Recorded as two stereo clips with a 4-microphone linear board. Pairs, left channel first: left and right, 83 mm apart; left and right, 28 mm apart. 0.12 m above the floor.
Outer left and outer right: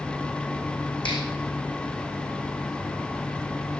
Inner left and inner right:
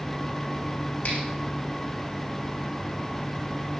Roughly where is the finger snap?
Left.